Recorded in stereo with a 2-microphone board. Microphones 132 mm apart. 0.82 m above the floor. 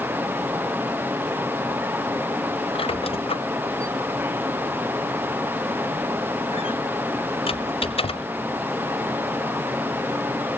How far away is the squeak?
About 1.3 m.